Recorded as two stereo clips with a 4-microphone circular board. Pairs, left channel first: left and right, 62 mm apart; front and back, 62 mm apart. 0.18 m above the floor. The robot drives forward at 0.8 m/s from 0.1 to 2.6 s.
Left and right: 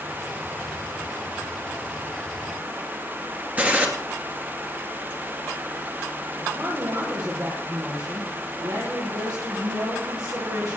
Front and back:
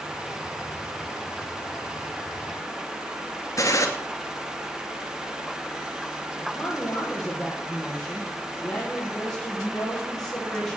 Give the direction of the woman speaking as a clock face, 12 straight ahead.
2 o'clock.